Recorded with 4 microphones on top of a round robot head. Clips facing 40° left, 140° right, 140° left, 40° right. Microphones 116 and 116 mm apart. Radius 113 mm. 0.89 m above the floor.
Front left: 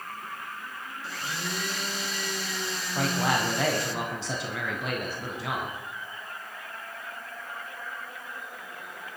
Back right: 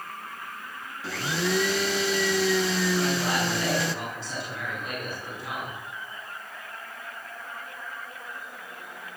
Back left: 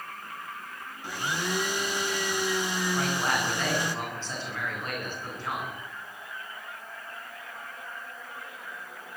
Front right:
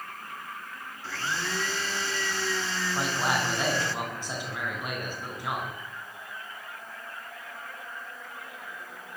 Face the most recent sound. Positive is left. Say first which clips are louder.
# back right 1 dB, front right 2 dB
turn(degrees=35)